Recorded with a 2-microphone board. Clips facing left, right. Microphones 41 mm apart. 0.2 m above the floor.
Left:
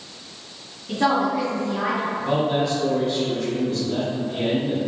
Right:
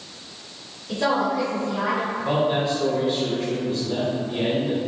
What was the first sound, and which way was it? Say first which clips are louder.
A woman speaking: left 2 dB; 40° left (ahead or behind).